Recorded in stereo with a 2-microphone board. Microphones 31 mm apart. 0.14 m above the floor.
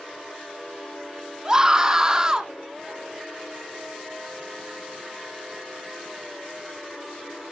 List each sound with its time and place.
1.4 s a scream: 20° right (ahead or behind), 1.7 m